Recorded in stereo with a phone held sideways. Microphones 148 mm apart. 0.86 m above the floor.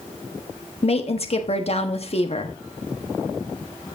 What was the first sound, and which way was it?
A woman speaking, 45° left (ahead or behind).